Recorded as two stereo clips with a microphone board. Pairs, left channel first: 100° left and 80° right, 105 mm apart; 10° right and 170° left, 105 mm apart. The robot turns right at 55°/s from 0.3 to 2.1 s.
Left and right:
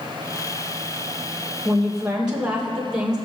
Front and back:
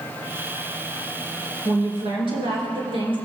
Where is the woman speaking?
175° left, 3 m; by 3.2 s 160° right, 3 m.